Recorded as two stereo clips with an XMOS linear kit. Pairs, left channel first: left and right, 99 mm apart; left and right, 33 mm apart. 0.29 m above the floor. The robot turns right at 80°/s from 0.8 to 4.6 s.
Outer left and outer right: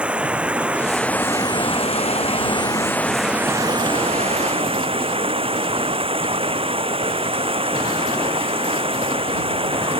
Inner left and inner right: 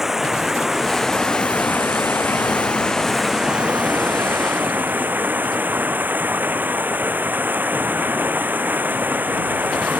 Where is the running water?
10° right; by 10.0 s 65° right.